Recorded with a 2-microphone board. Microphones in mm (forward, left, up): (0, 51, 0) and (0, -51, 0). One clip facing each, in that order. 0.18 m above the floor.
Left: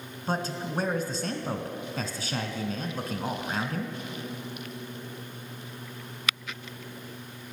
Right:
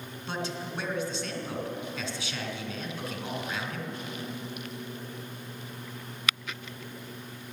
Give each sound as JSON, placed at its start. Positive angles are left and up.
{"t": 0.3, "sound": "a man speaking", "side_deg": 45, "distance_m": 1.5}